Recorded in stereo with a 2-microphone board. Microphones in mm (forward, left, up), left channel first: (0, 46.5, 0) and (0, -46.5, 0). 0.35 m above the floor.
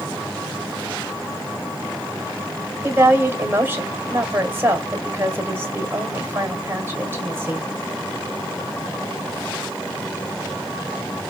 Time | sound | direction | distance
2.8 | a woman speaking | 25° right (ahead or behind) | 1.5 m